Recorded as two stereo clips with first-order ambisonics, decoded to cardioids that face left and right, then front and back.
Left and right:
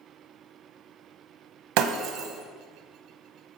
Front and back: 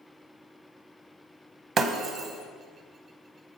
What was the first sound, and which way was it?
Breaking glass, 110° right.